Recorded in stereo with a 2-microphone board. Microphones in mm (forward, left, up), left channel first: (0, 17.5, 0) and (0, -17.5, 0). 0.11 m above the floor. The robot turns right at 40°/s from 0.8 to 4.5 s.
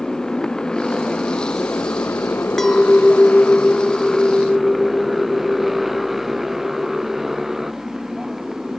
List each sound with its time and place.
0.0 s a motorcycle: 15° left (ahead or behind); by 8.8 s 10° right (ahead or behind)
2.6 s a clink: 10° left (ahead or behind); by 7.2 s 25° left (ahead or behind)